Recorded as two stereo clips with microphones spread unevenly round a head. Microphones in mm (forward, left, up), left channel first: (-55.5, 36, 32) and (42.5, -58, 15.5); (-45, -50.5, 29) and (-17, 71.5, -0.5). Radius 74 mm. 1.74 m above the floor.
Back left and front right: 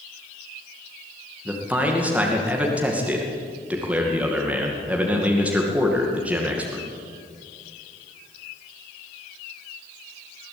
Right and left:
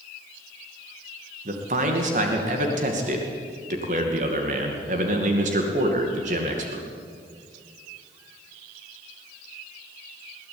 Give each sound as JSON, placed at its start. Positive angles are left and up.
{"t": 1.4, "sound": "a man speaking", "azimuth_deg": 40, "distance_m": 2.5}